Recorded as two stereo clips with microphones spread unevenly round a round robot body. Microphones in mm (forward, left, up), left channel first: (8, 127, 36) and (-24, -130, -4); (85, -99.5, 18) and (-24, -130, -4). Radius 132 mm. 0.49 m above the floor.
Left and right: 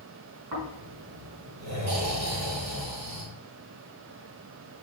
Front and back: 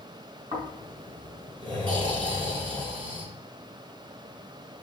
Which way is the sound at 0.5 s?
120° right.